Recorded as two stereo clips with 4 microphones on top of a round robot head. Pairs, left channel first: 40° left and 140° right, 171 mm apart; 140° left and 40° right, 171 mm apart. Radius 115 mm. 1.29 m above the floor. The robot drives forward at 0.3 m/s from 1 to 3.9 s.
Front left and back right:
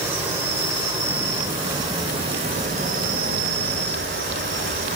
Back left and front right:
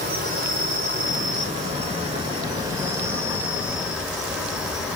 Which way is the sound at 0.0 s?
65° right.